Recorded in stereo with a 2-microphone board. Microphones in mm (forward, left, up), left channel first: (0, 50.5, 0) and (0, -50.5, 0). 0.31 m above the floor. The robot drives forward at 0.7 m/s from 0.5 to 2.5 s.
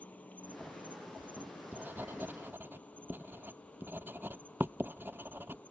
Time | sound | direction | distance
0.0 | an insect | 15° left (ahead or behind) | ?
1.2 | writing | 15° right (ahead or behind) | ?